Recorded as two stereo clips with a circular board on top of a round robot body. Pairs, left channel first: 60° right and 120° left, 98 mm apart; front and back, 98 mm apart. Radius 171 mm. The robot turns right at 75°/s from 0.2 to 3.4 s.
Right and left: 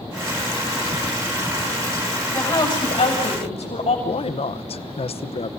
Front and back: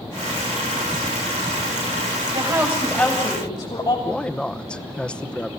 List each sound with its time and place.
2.3 s a woman speaking: 120° right, 7.5 m; by 4.0 s 45° right, 7.5 m
4.0 s a man speaking: 80° right, 1.0 m